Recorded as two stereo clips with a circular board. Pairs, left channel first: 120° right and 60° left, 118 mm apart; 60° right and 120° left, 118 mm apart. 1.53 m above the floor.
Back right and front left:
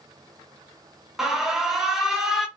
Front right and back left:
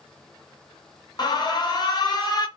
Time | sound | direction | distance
1.2 | an alarm | 25° right | 0.7 m